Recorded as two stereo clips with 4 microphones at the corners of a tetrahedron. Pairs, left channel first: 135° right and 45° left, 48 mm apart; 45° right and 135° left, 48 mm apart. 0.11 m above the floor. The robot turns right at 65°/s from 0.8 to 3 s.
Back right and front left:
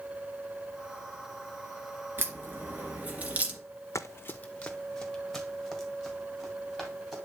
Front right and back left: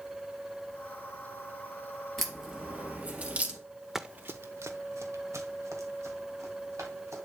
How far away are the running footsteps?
About 0.5 m.